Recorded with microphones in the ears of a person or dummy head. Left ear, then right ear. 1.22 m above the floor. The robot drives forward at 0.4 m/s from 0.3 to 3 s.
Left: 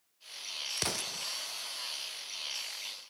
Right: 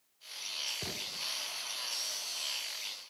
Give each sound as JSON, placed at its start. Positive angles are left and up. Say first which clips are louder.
{"t": 0.8, "sound": "an explosion", "louder": "left 3 dB", "side_deg": 60, "distance_m": 0.6}